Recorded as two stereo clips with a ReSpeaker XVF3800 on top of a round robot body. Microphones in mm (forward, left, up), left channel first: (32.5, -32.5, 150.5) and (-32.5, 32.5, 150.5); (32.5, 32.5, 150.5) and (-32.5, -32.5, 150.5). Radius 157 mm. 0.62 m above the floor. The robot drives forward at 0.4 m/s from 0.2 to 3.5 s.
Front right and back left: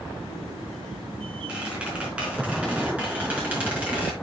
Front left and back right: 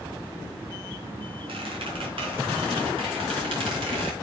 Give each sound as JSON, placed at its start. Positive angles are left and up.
{"t": 1.5, "sound": "a squeak", "azimuth_deg": -145, "distance_m": 4.0}